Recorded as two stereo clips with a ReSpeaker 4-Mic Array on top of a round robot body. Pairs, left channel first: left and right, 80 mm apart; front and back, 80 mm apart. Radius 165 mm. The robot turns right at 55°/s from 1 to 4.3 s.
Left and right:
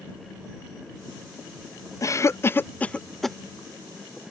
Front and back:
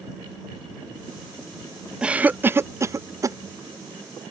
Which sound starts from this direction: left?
A cough, at 2.0 s.